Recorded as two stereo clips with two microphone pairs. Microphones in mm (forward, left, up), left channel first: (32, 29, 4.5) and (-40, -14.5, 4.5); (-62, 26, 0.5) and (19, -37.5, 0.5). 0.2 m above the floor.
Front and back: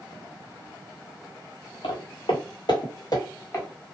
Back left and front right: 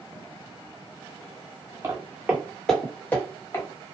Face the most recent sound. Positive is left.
turn(degrees=85)